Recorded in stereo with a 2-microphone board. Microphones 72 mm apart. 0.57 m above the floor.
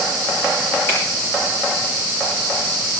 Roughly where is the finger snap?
Left.